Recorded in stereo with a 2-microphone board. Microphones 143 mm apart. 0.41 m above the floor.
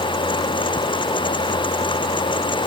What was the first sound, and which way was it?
Only background noise.